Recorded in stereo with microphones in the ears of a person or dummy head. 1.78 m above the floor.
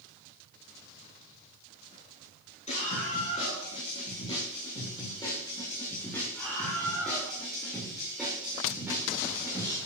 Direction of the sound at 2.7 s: 40° left (ahead or behind).